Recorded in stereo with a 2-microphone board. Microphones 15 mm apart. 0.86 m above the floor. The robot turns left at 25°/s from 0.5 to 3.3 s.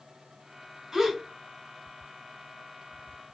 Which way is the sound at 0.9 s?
55° right (ahead or behind).